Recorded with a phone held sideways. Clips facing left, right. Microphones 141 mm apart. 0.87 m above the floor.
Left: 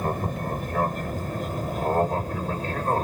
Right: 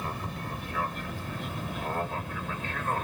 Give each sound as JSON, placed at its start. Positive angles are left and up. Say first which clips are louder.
{"t": 0.0, "sound": "an aircraft", "louder": "left 8 dB", "side_deg": 45}